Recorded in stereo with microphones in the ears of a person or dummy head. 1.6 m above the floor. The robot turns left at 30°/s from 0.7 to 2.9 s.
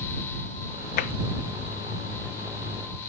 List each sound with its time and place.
1.0 s tapping: 50° left (ahead or behind)